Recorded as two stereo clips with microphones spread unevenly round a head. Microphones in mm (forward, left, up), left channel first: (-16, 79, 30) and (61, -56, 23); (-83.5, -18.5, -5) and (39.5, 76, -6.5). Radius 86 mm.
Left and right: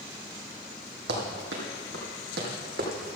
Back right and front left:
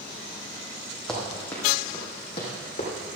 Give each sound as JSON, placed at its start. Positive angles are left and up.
{"t": 1.1, "sound": "running footsteps", "azimuth_deg": -55, "distance_m": 3.5}